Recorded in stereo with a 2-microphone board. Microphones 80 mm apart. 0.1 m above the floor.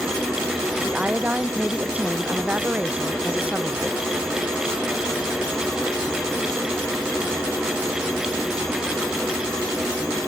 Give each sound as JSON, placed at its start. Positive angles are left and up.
{"t": 0.8, "sound": "a woman speaking", "side_deg": -15}